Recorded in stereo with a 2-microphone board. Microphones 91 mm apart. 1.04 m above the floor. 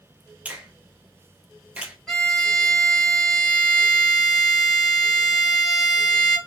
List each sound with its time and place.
0.5 s a finger snap: 15° right (ahead or behind), 0.6 m
2.1 s a violin: 5° left (ahead or behind), 1.0 m